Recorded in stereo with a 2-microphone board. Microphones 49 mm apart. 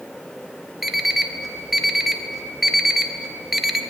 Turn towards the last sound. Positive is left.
turn(degrees=-5)  # may be behind; listen again after turning